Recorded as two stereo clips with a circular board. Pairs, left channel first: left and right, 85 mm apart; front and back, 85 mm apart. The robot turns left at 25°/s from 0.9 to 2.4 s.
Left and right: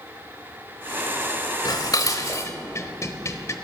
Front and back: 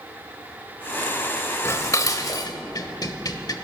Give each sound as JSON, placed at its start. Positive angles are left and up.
{"t": 1.6, "sound": "dishes clattering", "azimuth_deg": 55, "distance_m": 1.0}